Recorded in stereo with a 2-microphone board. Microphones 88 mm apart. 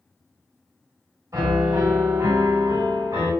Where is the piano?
40° right (ahead or behind), 1.4 m.